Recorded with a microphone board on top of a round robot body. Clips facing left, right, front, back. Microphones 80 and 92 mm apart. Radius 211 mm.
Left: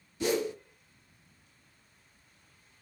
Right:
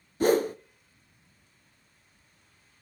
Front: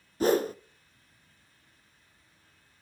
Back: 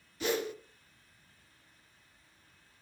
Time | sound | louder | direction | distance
0.2 | a whoosh | right 7 dB, front 8 dB | 45° right | 0.6 m